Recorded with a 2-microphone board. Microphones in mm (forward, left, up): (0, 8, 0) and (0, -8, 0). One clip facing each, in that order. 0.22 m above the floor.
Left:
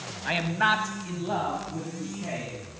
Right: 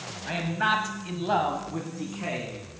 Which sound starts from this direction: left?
A man speaking, at 0.2 s.